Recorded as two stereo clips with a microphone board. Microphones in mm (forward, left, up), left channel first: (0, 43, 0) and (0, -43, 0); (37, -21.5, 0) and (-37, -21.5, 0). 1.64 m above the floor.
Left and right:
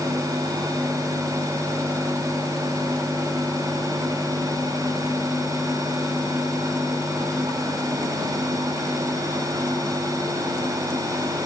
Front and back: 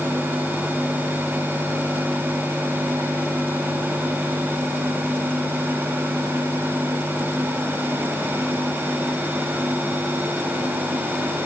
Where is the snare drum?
I don't hear a snare drum.